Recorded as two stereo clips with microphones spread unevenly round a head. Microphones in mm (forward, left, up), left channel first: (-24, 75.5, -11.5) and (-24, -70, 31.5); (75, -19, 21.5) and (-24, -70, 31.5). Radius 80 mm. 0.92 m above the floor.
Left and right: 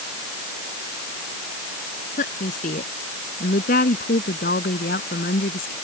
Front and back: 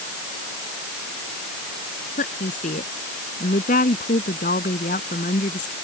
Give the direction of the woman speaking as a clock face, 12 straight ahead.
10 o'clock.